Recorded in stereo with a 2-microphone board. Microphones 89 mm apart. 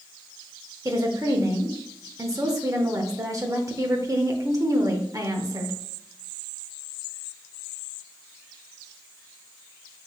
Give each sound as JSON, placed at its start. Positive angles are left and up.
{"t": 0.8, "sound": "a woman speaking", "side_deg": -40, "distance_m": 1.0}